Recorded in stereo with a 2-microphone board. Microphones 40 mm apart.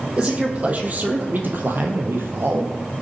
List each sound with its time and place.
0.2 s a man speaking: 30° right (ahead or behind), 3 m; by 2.7 s 65° right (ahead or behind), 2.5 m